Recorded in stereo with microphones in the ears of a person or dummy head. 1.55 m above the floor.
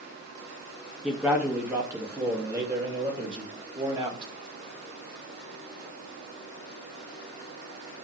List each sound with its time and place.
1.0 s a man speaking: 5° right (ahead or behind), 2 m; by 4.3 s 30° right (ahead or behind), 3.5 m